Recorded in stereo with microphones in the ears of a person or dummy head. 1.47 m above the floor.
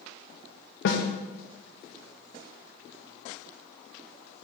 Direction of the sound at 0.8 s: 70° left (ahead or behind).